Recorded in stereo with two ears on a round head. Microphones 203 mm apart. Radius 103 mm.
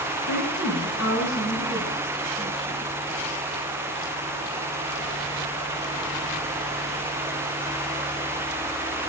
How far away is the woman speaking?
About 4.5 m.